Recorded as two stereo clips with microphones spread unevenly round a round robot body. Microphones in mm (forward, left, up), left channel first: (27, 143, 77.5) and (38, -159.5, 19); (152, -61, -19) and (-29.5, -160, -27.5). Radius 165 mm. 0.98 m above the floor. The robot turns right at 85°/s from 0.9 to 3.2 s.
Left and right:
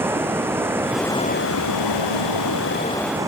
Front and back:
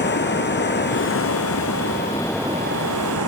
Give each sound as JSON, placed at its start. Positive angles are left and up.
{"t": 0.0, "sound": "running water", "azimuth_deg": -5}